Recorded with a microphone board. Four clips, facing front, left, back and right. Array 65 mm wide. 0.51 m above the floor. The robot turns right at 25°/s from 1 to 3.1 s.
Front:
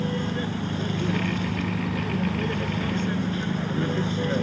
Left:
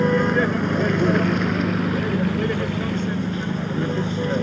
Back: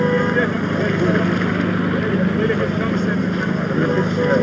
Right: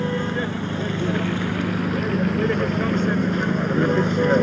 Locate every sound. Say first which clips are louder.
0.0 s a vehicle: left 6 dB, back 11 dB; 155° left; by 4.4 s 150° right